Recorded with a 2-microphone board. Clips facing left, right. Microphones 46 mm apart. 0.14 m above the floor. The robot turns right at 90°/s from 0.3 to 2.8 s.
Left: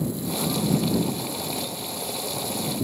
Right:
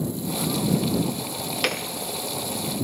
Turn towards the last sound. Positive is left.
turn(degrees=25)